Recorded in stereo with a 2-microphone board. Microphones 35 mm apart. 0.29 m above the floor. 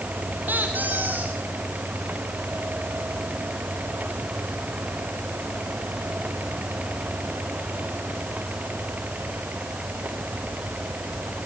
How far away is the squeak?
About 5 m.